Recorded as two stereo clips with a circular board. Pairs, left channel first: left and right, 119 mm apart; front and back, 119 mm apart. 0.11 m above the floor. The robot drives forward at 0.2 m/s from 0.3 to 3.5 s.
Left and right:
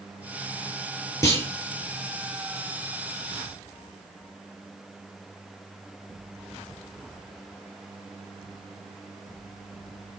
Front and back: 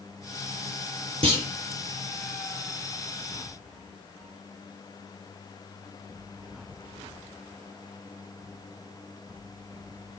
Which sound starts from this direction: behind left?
A clunk, at 1.2 s.